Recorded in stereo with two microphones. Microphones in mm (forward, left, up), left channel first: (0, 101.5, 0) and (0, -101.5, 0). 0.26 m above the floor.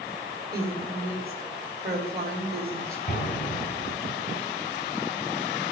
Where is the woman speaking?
50° right (ahead or behind), 4.5 m.